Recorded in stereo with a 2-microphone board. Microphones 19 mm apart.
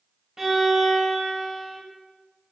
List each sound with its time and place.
0.4 s a violin: 15° right (ahead or behind), 0.9 m